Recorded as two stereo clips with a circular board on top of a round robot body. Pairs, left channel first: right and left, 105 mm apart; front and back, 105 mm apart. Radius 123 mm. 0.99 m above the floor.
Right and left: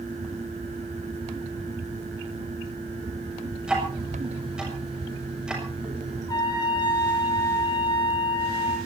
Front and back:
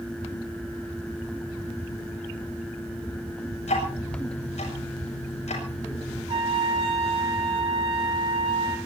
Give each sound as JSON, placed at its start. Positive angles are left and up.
{"t": 3.6, "sound": "ticking", "azimuth_deg": 5, "distance_m": 8.5}
{"t": 6.3, "sound": "a trumpet", "azimuth_deg": -145, "distance_m": 6.0}